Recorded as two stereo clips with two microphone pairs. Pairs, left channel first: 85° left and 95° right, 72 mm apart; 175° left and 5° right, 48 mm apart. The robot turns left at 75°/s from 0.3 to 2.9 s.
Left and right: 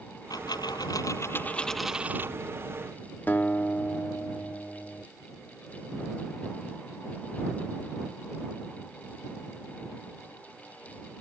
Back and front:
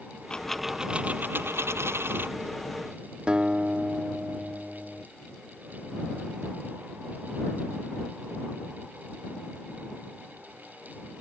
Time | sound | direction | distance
0.3 | a dropped coin | 110° left | ?
3.3 | a guitar | 45° left | ?